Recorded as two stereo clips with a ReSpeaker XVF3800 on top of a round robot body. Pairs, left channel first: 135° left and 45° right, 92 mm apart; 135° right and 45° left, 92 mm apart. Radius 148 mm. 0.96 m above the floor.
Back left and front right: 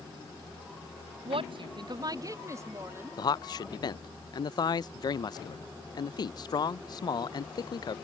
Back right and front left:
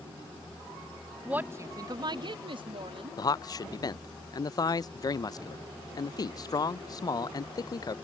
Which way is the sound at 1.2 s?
35° right.